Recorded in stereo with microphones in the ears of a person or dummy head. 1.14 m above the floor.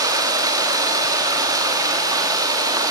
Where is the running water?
15° right (ahead or behind), 1.8 m.